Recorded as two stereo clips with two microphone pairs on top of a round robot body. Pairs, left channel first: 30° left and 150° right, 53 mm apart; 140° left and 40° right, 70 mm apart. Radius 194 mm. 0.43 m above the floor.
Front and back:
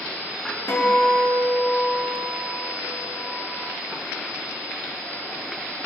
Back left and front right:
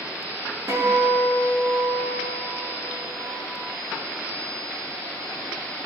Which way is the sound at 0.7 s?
5° left.